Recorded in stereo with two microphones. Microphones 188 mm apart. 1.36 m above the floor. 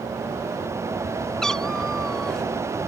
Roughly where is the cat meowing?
Centre.